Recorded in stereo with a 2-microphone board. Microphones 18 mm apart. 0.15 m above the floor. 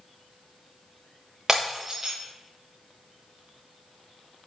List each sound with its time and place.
1.5 s breaking glass: 30° right (ahead or behind), 3 m